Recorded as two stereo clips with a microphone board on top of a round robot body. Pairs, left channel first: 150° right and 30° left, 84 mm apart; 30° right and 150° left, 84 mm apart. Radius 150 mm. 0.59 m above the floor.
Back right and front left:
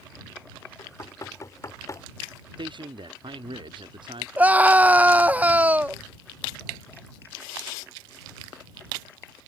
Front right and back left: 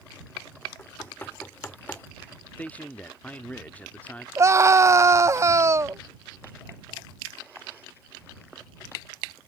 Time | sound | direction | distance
0.8 | knocking | 100° right | ?
2.6 | a man speaking | 40° left | ?
4.4 | a scream | 100° left | ?